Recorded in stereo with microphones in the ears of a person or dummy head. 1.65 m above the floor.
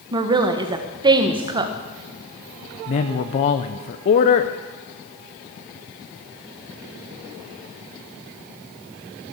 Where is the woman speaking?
20° right (ahead or behind), 1.3 m.